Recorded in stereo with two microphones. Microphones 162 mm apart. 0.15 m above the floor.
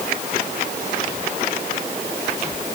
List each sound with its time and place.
Only background noise.